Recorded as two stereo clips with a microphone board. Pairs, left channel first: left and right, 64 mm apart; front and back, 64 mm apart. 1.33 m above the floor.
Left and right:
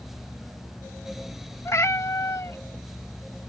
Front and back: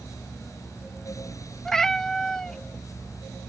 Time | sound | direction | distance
1.6 | a cat meowing | 75° left | ?